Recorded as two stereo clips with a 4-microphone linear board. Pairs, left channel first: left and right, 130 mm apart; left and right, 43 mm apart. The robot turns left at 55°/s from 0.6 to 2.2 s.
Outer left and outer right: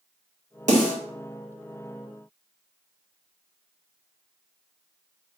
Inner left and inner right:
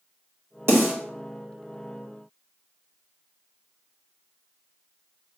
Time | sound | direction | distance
0.7 | a snare drum | 75° right (ahead or behind) | 2 m